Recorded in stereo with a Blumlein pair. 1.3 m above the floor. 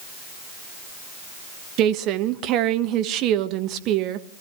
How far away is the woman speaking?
About 1.3 m.